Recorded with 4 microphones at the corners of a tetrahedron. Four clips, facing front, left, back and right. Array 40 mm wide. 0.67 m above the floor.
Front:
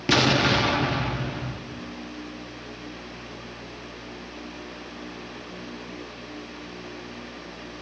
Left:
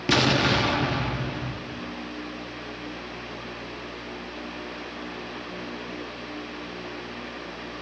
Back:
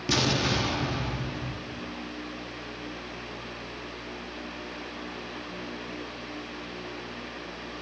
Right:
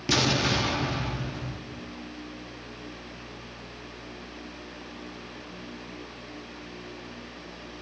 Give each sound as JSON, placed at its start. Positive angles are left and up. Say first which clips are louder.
{"t": 0.1, "sound": "an explosion", "louder": "left 3 dB, front 6 dB", "azimuth_deg": 35, "distance_m": 0.9}